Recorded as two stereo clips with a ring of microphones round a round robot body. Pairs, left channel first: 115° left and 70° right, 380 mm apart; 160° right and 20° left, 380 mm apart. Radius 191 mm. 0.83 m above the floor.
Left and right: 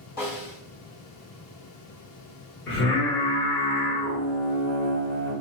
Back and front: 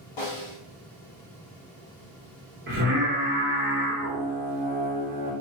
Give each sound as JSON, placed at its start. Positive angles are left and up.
{"t": 0.2, "sound": "a snare drum", "azimuth_deg": 180, "distance_m": 1.3}
{"t": 2.7, "sound": "singing", "azimuth_deg": 70, "distance_m": 1.1}